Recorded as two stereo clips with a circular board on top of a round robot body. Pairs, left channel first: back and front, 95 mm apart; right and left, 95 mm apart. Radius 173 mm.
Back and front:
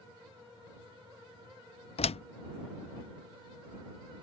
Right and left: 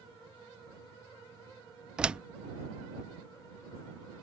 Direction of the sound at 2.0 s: 170° left.